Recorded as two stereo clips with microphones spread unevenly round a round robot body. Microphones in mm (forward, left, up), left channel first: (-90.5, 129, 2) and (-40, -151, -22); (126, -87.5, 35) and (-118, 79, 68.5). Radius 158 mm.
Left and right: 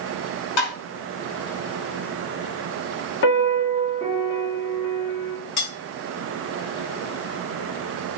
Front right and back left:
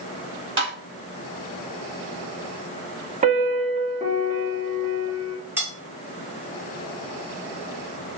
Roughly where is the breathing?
No breathing in this recording.